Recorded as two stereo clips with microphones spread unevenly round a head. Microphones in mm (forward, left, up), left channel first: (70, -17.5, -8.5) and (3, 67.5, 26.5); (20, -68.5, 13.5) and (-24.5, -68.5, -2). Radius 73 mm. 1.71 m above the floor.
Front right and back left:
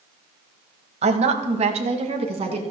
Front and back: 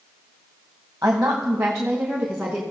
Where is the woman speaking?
115° left, 1.2 m; by 2.6 s 100° left, 2.5 m.